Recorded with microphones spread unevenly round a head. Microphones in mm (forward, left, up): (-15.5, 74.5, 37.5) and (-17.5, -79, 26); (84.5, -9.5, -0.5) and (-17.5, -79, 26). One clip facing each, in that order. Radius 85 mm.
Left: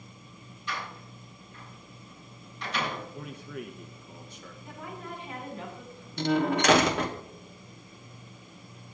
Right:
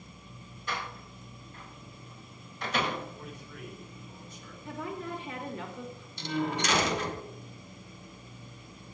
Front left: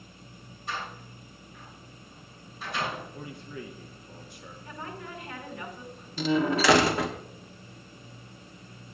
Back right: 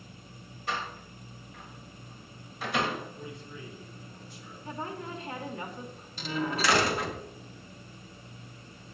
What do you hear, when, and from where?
0.7 s a door slam: 135° right, 3 m
3.1 s a man speaking: 60° left, 1.3 m
4.7 s a woman speaking: 85° right, 3 m
6.2 s a door slam: 50° left, 1.2 m